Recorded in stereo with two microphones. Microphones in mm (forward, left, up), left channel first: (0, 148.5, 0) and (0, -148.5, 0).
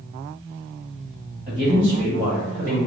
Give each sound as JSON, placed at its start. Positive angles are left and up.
{"t": 1.5, "sound": "a man speaking", "side_deg": -35, "distance_m": 1.2}